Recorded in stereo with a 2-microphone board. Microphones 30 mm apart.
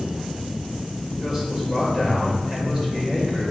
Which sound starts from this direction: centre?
A man speaking, at 1.2 s.